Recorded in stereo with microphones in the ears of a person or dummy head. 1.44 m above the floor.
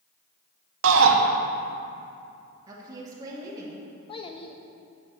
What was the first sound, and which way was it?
A shout, 80° right.